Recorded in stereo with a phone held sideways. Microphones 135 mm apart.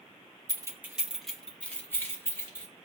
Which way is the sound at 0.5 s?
30° right (ahead or behind).